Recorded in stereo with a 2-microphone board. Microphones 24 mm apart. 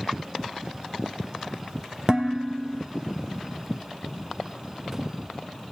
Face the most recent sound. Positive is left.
turn(degrees=-40)  # may be behind; listen again after turning